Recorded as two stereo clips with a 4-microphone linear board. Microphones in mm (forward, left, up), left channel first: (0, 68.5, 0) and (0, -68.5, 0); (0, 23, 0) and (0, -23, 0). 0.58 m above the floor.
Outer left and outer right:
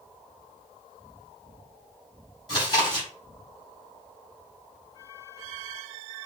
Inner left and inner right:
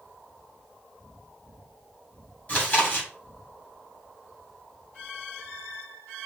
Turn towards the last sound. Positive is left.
turn(degrees=30)  # may be behind; listen again after turning